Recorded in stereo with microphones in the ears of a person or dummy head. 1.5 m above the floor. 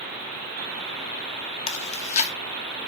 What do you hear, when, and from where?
1.7 s chewing: 45° left (ahead or behind), 2 m